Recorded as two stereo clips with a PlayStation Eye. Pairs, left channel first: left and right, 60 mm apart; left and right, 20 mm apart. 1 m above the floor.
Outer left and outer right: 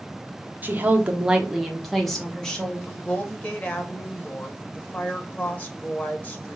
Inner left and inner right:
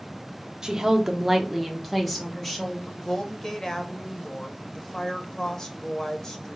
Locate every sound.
0.6 s a woman speaking: 30° right (ahead or behind), 0.8 m; by 2.8 s 10° left (ahead or behind), 1.5 m
2.9 s a woman speaking: 30° left (ahead or behind), 0.8 m